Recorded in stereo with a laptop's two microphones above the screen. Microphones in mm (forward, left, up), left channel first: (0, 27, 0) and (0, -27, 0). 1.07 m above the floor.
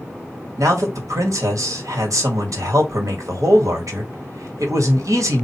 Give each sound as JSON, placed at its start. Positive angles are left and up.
{"t": 0.6, "sound": "a man speaking", "side_deg": -85, "distance_m": 1.2}